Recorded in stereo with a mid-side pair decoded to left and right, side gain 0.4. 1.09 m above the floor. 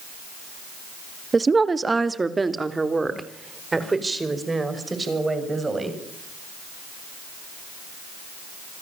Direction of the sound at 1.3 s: 30° right.